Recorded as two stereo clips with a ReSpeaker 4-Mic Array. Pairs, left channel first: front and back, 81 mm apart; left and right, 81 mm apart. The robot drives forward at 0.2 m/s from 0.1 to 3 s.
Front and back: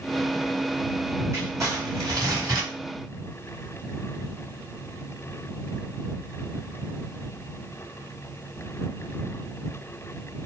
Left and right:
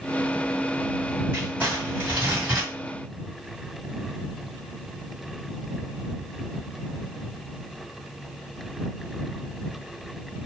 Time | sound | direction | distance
1.3 | crumpling | 150° right | 1.8 m